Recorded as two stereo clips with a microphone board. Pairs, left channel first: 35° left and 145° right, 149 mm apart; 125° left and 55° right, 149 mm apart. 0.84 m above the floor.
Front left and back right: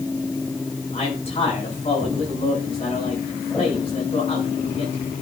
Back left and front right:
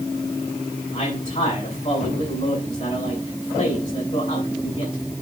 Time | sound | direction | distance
0.9 | a man speaking | 80° left | 6.5 m